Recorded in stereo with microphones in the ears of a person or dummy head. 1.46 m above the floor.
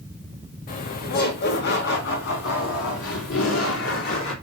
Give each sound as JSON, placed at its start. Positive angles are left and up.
{"t": 0.7, "sound": "laughter", "side_deg": 40, "distance_m": 2.0}